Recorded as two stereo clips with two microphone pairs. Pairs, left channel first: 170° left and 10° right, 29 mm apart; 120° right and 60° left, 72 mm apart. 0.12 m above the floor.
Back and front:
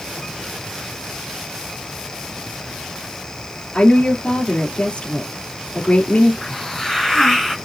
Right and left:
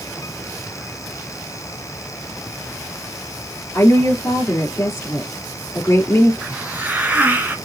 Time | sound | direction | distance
3.7 | a woman speaking | 160° right | 3 m
6.4 | a hiss | 100° left | 1.9 m